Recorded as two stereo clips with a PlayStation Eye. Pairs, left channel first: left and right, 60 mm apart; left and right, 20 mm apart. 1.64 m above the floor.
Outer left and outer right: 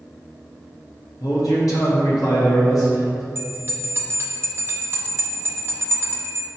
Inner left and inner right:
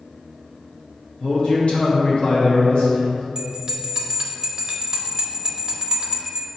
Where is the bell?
40° right (ahead or behind), 0.5 m.